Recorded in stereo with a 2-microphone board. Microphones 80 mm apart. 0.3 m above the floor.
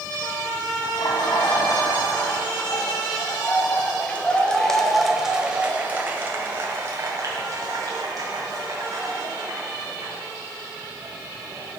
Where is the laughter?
60° left (ahead or behind), 2.5 m; by 11.8 s 65° right (ahead or behind), 4 m.